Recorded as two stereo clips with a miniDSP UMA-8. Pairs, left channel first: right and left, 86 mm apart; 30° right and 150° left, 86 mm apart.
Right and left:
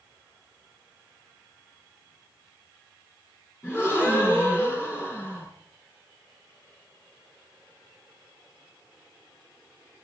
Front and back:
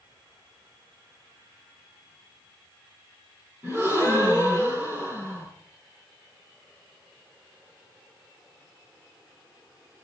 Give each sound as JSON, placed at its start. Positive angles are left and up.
{"t": 3.6, "sound": "a gasp", "azimuth_deg": -160, "distance_m": 7.5}